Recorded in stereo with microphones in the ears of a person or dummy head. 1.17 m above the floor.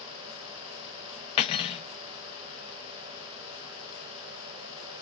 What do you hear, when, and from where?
1.4 s cutlery clinking: 25° left (ahead or behind), 0.6 m